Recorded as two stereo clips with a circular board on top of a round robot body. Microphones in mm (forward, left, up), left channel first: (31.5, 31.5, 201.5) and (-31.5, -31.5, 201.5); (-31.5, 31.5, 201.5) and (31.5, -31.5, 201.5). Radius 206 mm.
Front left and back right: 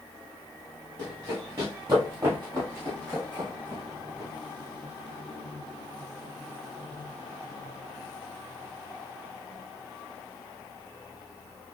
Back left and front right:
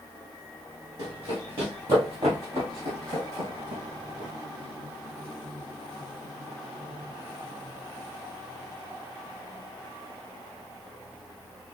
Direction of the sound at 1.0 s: 85° right.